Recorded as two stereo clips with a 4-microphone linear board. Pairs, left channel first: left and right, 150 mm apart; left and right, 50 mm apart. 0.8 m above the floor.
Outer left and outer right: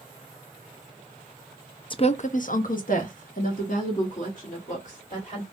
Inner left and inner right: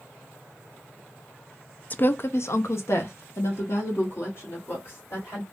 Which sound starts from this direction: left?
A woman speaking, at 1.9 s.